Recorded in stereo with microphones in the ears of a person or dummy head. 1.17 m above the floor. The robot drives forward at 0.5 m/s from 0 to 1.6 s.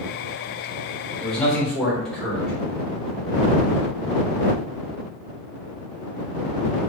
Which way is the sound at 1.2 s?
5° left (ahead or behind).